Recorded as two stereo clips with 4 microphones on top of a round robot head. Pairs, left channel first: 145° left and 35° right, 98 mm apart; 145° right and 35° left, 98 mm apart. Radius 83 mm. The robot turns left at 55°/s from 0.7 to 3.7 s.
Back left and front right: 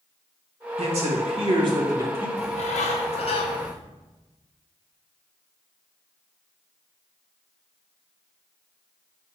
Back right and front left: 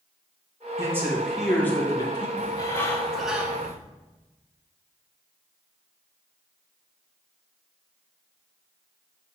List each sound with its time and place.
0.8 s a man speaking: 25° right, 2.5 m; by 2.3 s 105° right, 2.5 m
2.4 s a bird: 170° left, 1.0 m; by 3.8 s 100° left, 1.0 m